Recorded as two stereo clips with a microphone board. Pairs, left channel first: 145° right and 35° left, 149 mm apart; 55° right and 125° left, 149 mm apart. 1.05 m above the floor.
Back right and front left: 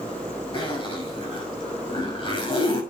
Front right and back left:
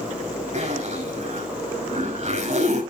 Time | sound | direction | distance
0.5 | a zipper | 160° left | 6 m